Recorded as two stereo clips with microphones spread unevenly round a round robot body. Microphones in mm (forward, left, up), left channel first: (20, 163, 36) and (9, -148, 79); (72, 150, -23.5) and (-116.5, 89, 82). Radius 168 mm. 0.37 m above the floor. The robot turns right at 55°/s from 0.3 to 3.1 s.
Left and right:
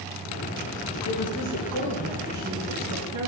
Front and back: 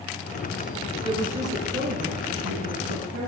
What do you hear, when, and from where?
1.0 s a woman speaking: 115° left, 5 m; by 3.3 s 130° right, 5 m